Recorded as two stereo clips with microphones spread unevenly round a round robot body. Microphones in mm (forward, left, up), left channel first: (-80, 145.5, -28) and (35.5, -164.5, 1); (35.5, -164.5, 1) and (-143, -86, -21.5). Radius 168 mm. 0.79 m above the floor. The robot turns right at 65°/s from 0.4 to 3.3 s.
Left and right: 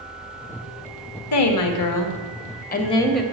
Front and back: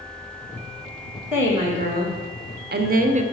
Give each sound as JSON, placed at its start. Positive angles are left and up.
{"t": 1.3, "sound": "a woman speaking", "azimuth_deg": 75, "distance_m": 1.5}